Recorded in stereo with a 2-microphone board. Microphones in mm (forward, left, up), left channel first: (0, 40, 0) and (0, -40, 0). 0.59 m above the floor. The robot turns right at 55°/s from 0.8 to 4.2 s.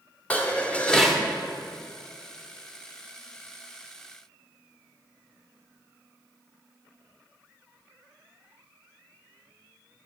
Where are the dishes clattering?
15° left (ahead or behind), 1.0 m; by 1.2 s 10° right (ahead or behind), 1.0 m.